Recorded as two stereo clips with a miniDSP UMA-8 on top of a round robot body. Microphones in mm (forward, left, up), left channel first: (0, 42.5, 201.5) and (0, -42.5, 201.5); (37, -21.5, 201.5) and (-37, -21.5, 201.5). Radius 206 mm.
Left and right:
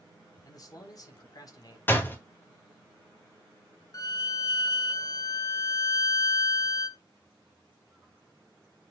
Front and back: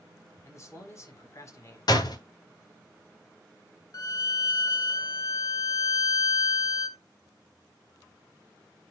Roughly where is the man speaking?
Ahead left.